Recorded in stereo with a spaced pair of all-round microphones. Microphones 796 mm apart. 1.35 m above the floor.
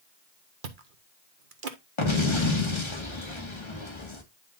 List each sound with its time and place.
0.6 s chewing: 75° right (ahead or behind), 1.3 m
2.0 s an explosion: 35° left (ahead or behind), 1.9 m